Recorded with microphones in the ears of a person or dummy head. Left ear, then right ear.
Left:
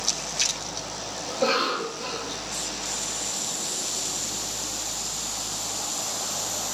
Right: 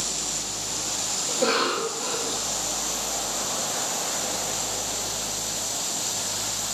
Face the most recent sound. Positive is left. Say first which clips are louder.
# even
turn(degrees=10)  # may be behind; listen again after turning